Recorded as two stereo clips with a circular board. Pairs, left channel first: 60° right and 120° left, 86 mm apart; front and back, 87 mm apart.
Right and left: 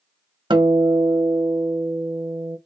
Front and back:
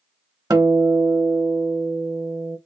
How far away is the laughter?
I don't hear laughter.